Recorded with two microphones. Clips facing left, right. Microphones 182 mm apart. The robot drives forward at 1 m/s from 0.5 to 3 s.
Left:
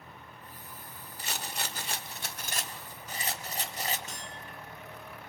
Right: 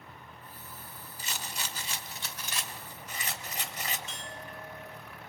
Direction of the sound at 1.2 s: 60° left (ahead or behind).